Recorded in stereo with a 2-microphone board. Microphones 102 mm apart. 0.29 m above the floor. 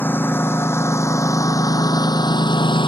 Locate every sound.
0.0 s a lawn mower: 20° left (ahead or behind); by 2.9 s 50° left (ahead or behind)